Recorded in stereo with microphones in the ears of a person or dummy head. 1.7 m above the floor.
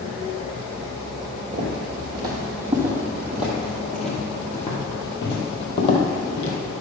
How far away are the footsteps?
About 2.5 m.